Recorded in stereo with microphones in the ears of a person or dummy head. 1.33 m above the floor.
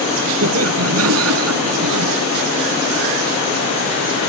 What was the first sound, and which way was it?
Laughter, 85° right.